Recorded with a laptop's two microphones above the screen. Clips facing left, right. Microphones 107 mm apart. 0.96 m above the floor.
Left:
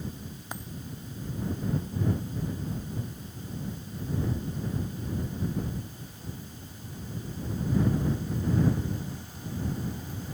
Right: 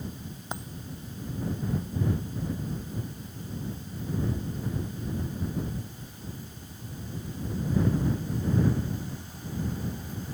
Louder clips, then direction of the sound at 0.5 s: Right 3 dB; 20° right (ahead or behind).